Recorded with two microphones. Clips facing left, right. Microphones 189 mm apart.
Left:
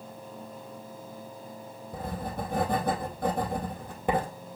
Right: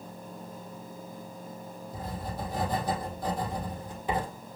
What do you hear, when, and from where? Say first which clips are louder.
1.9 s writing: left 4 dB; 55° left (ahead or behind), 2 m